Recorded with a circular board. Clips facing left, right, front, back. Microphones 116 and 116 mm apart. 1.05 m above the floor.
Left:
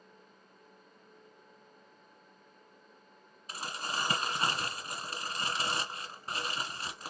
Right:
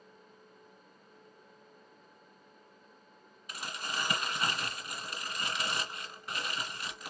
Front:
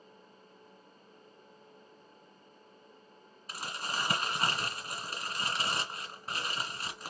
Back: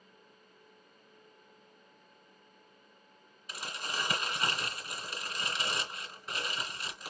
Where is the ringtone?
I don't hear a ringtone.